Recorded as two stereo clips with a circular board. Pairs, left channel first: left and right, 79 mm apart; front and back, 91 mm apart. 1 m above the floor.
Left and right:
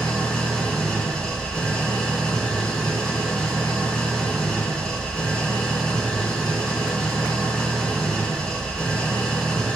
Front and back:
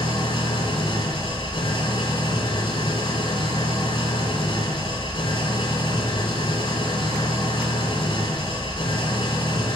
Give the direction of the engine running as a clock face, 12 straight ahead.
12 o'clock.